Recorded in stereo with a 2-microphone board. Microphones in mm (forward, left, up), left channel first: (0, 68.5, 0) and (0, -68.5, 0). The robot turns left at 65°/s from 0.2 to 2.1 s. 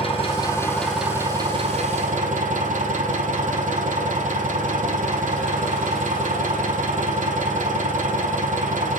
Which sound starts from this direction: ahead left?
An engine running, at 0.0 s.